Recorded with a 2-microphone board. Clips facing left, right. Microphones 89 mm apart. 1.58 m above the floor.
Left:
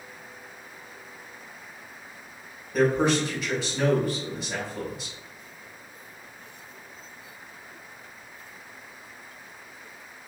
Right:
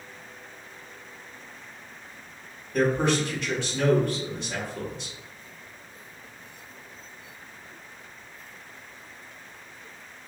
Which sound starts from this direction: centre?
A man speaking, at 2.7 s.